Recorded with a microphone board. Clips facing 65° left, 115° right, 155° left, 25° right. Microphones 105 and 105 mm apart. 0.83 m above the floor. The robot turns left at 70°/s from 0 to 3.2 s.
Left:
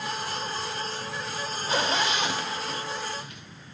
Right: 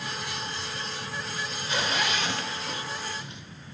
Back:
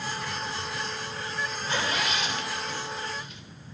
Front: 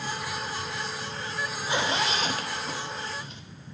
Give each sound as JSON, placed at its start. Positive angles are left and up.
{"t": 1.7, "sound": "a zipper", "azimuth_deg": 45, "distance_m": 0.6}